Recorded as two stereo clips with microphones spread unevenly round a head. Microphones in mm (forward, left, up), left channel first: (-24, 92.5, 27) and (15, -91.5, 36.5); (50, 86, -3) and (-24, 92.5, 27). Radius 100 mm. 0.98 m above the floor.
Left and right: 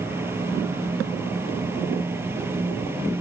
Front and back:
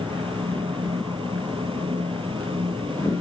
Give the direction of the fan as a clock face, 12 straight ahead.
5 o'clock.